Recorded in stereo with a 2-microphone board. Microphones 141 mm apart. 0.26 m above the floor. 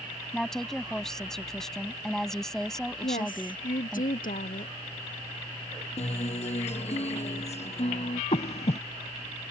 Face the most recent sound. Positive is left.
turn(degrees=50)  # may be behind; listen again after turning